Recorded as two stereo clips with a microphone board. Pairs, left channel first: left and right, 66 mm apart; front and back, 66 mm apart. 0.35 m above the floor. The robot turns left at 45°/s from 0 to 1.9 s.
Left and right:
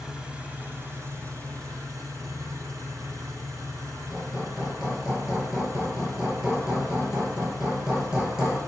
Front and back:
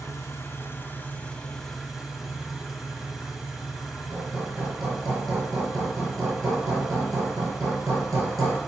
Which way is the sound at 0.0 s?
10° right.